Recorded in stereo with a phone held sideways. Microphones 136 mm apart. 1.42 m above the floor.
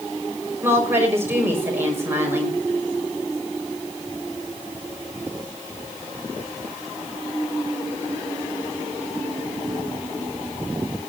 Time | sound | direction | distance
0.6 | a woman speaking | 15° right (ahead or behind) | 5.5 m